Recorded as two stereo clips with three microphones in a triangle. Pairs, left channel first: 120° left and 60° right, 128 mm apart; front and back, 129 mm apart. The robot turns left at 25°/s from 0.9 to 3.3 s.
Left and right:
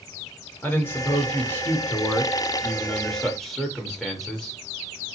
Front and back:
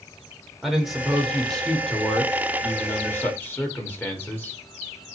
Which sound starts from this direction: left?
A man speaking, at 0.6 s.